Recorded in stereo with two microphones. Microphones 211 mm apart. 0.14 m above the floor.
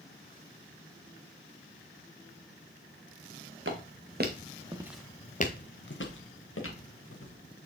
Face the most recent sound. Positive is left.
turn(degrees=80)